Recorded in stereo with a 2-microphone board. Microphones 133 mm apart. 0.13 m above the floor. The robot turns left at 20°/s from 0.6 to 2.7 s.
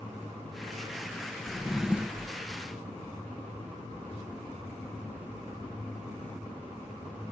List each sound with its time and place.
1.5 s a drawer: centre (ahead or behind), 0.9 m; by 2.4 s 15° right (ahead or behind), 0.9 m